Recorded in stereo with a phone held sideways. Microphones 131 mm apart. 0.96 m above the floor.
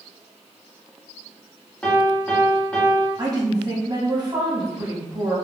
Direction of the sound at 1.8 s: 10° left (ahead or behind).